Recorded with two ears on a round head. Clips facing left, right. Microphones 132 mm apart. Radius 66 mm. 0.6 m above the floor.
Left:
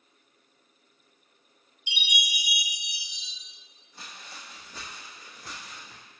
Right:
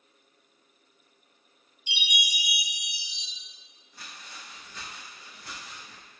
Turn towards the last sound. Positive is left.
turn(degrees=45)  # may be behind; listen again after turning